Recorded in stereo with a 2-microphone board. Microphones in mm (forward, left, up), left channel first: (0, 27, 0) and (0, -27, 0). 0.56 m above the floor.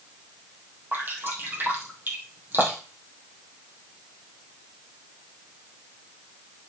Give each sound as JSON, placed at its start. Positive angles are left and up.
{"t": 0.9, "sound": "dripping", "side_deg": -40, "distance_m": 3.5}